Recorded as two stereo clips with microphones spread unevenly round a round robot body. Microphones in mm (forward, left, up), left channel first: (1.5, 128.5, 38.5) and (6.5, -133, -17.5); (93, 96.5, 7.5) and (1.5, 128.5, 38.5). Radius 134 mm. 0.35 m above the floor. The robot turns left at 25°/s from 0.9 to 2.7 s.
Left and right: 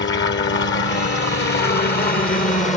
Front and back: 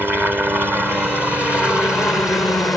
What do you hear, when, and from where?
0.0 s a helicopter: 75° left; by 2.8 s 30° left